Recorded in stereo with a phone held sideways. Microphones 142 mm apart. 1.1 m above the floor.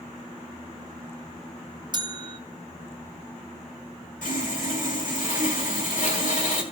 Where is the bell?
35° right (ahead or behind), 0.5 m.